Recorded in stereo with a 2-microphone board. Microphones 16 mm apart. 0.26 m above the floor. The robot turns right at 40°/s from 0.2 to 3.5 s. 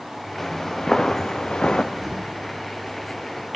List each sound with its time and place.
0.4 s footsteps: 5° left (ahead or behind), 1.9 m; by 1.8 s 80° left, 1.3 m
1.9 s an explosion: 25° right (ahead or behind), 5 m; by 2.4 s 40° right (ahead or behind), 5 m